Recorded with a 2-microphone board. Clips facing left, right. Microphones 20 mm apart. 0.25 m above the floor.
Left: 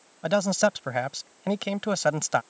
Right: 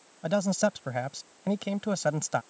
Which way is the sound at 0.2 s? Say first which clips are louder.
Left 3 dB; 25° left (ahead or behind).